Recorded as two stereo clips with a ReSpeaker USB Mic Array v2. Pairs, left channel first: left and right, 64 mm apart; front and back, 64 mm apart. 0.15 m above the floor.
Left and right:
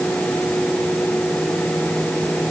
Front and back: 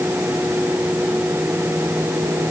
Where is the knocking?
I don't hear knocking.